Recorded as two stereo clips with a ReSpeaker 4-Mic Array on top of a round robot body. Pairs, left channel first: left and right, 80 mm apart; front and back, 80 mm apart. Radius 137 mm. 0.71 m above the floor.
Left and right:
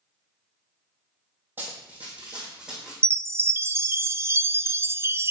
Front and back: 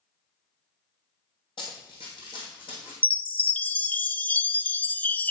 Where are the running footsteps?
20° right, 1.7 m; by 2.9 s 10° right, 2.5 m.